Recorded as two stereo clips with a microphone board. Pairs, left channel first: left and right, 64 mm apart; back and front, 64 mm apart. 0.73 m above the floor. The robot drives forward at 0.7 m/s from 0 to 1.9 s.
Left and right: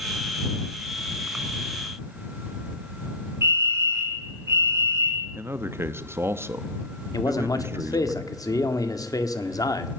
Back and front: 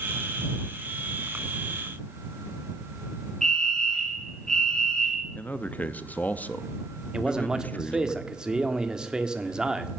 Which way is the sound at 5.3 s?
125° right.